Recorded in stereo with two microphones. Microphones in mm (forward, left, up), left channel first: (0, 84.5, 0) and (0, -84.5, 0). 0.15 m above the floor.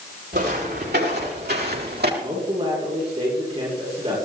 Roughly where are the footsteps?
Right.